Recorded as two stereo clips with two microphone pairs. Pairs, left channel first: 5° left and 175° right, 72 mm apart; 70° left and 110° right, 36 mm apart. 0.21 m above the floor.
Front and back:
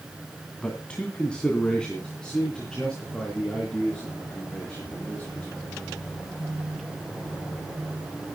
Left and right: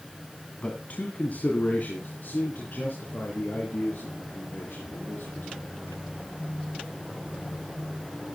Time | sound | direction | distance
0.6 | a man speaking | 70° left | 2.0 m